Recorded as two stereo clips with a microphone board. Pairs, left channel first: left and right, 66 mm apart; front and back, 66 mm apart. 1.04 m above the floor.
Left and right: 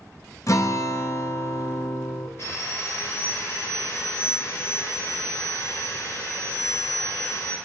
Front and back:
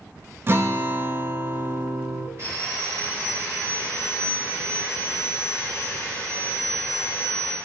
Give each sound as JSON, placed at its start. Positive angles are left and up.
{"t": 0.5, "sound": "a guitar", "azimuth_deg": 130, "distance_m": 0.7}
{"t": 2.4, "sound": "sawing", "azimuth_deg": 135, "distance_m": 3.5}